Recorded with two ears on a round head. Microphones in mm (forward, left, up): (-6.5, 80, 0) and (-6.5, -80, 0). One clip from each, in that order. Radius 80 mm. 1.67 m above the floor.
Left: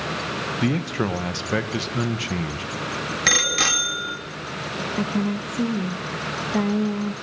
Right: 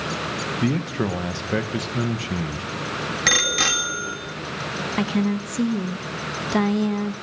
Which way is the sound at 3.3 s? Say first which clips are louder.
Even; 5° left (ahead or behind).